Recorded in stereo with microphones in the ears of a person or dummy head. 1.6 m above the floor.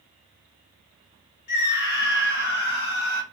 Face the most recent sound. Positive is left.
turn(degrees=60)  # may be behind; listen again after turning